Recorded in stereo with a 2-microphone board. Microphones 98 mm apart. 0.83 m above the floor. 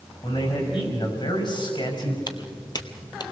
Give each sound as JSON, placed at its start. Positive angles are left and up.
{"t": 0.2, "sound": "a man speaking", "side_deg": 60, "distance_m": 6.0}
{"t": 2.3, "sound": "footsteps", "side_deg": 45, "distance_m": 1.4}